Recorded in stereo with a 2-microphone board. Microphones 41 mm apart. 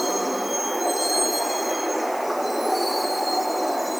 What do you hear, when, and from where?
0.0 s a vehicle: centre (ahead or behind)